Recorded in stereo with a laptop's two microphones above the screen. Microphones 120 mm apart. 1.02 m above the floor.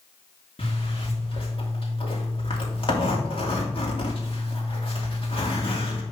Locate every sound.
0.6 s a zipper: 50° left (ahead or behind), 2.5 m